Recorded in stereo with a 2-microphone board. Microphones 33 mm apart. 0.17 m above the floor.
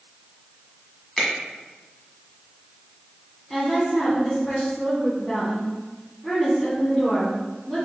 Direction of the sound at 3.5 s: 25° left (ahead or behind).